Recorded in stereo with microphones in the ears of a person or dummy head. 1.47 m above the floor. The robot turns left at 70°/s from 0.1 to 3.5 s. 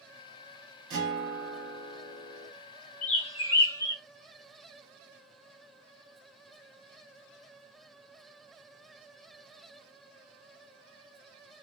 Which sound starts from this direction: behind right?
A guitar, at 0.9 s.